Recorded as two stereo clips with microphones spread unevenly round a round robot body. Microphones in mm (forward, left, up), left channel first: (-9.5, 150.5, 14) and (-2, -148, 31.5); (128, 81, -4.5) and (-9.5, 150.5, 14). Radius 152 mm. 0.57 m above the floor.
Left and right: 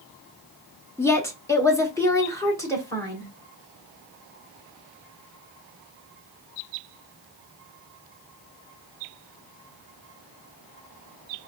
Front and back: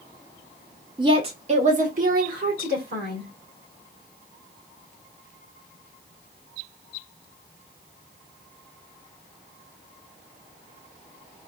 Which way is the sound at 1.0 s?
145° left.